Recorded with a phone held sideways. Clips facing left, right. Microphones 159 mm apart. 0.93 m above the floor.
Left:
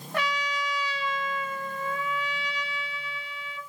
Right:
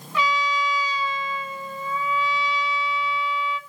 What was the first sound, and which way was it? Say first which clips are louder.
A trumpet: right 6 dB; 55° left (ahead or behind).